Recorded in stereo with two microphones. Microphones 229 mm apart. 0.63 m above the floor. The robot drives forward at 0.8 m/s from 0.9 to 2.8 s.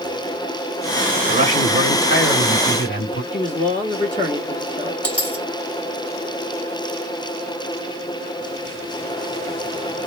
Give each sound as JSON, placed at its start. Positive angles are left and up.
{"t": 1.3, "sound": "a man speaking", "side_deg": 50, "distance_m": 2.0}
{"t": 3.3, "sound": "a man speaking", "side_deg": 30, "distance_m": 1.6}
{"t": 5.0, "sound": "a dropped coin", "side_deg": 5, "distance_m": 2.5}